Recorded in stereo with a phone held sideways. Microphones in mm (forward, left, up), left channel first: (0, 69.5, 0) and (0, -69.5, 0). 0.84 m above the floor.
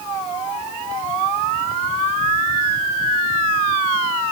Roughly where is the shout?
No shout in this recording.